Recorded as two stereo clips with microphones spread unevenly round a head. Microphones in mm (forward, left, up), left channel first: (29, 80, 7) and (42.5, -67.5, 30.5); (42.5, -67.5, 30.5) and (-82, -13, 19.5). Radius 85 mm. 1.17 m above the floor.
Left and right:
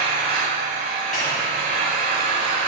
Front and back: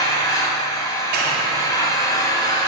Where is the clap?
145° left, 3 m.